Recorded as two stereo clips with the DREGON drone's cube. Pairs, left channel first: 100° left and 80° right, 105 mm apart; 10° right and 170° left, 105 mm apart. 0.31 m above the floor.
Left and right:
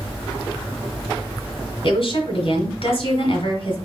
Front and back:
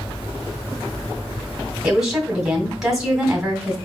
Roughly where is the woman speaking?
Left.